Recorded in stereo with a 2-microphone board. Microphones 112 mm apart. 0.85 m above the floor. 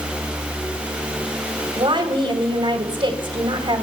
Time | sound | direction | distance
1.8 | a woman speaking | 50° right (ahead or behind) | 4 m